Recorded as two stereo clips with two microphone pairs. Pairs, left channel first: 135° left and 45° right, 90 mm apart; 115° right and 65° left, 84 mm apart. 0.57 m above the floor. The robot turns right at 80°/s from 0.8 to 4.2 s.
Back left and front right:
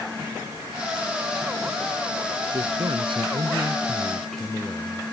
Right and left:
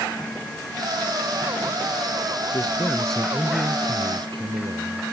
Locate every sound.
2.5 s a man speaking: 85° right; by 5.0 s 55° left